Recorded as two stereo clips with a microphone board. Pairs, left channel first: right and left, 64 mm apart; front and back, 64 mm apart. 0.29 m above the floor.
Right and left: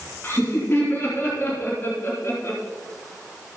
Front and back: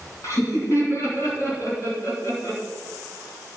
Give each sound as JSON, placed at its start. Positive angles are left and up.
{"t": 0.2, "sound": "laughter", "azimuth_deg": -35, "distance_m": 4.0}